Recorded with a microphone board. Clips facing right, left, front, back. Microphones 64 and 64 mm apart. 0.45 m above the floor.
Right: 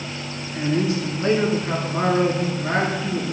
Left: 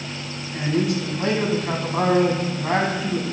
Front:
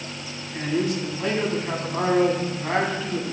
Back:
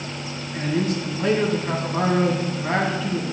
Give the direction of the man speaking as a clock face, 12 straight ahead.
9 o'clock.